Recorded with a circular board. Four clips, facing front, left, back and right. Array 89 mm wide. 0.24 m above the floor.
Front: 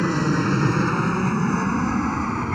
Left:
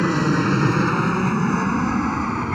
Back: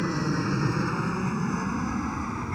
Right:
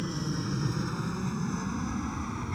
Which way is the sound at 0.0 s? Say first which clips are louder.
Left 14 dB, front 6 dB; 65° left.